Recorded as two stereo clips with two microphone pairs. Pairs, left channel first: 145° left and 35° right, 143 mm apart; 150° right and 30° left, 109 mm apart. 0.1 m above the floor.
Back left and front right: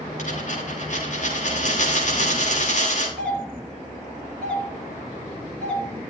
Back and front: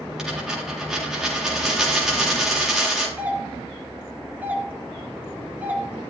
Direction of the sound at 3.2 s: 70° left.